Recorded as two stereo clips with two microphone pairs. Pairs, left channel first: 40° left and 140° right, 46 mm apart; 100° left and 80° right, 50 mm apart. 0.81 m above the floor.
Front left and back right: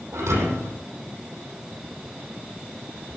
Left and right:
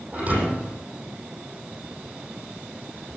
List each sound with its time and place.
0.1 s a thud: 140° right, 8.5 m